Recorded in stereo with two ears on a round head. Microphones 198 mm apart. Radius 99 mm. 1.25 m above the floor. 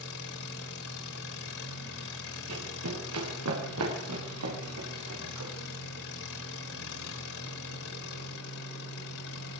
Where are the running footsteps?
80° right, 8 m; by 5.5 s 70° right (ahead or behind), 11 m.